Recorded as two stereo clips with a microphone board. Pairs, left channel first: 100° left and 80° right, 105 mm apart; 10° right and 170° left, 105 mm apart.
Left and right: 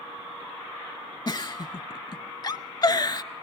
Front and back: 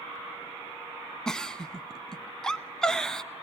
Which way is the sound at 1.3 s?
75° left.